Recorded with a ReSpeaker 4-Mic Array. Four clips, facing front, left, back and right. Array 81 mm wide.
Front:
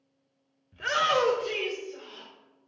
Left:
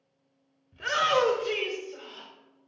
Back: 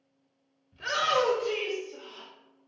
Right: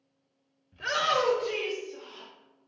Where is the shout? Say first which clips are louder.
Left 2 dB, front 1 dB; straight ahead, 1.0 m; by 2.3 s 90° left, 2 m.